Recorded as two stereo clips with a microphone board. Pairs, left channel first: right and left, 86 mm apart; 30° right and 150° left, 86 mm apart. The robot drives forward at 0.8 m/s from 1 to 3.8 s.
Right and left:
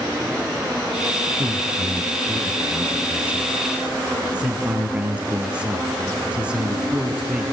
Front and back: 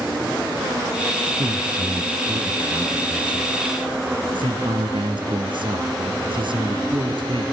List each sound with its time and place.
1.4 s a man speaking: 150° left, 1.5 m; by 7.4 s 170° left, 3 m